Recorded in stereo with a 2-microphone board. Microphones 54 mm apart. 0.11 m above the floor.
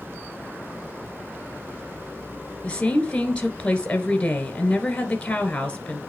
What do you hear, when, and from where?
2.6 s a woman speaking: 20° left (ahead or behind), 1.2 m